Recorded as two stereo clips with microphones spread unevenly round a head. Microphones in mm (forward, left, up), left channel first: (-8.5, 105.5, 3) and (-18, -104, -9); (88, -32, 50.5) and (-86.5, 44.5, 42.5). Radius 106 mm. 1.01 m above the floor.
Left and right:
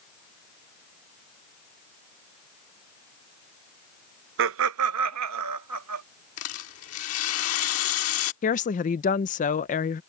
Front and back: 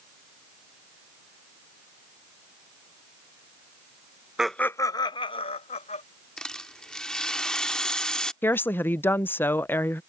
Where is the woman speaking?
55° left.